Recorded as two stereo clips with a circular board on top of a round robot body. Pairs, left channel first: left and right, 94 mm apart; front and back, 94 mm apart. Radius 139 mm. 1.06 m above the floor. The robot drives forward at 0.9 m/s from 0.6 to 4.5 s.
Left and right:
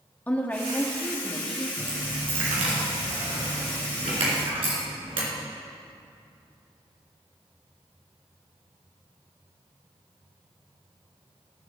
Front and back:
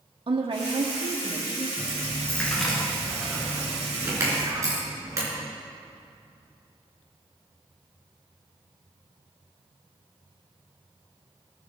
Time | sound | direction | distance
0.3 | a woman speaking | 160° left | 1.2 m
1.8 | a dropped coin | 65° right | 2.5 m